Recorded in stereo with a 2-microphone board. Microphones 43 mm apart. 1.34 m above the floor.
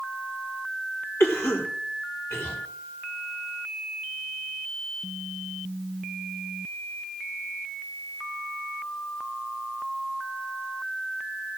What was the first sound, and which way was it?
A cough, 80° left.